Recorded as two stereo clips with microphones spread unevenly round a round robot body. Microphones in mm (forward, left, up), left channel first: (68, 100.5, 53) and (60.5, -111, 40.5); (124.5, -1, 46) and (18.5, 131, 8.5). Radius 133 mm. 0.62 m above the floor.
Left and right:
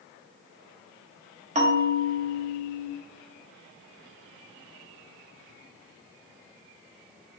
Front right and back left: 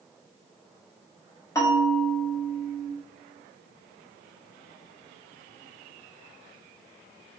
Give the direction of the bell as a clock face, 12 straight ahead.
4 o'clock.